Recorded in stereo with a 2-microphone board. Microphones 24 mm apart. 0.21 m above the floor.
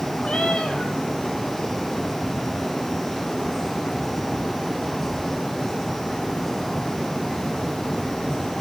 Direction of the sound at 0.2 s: 50° left (ahead or behind).